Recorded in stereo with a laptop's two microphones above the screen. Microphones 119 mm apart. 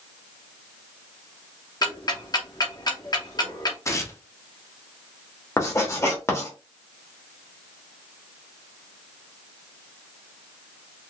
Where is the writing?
25° left (ahead or behind), 0.8 m.